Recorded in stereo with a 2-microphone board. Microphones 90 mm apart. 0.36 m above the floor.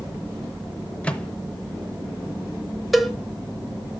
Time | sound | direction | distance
1.0 | a microwave | 15° left (ahead or behind) | 0.8 m
2.9 | a cowbell | centre (ahead or behind) | 0.9 m